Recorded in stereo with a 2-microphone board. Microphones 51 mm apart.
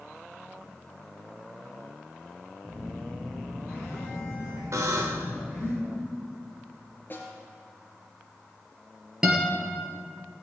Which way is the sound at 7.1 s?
40° left (ahead or behind).